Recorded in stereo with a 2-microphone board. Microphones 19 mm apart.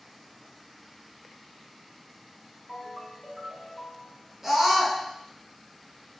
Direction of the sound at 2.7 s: Centre (ahead or behind).